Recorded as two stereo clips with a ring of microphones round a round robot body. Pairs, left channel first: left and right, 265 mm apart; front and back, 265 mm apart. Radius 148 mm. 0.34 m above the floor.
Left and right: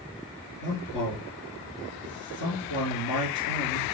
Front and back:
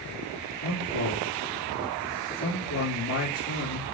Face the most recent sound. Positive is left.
turn(degrees=50)